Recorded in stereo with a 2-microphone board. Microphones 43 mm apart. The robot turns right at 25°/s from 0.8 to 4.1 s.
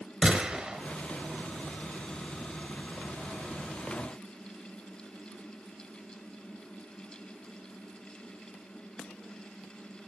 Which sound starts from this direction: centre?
A gunshot, at 0.2 s.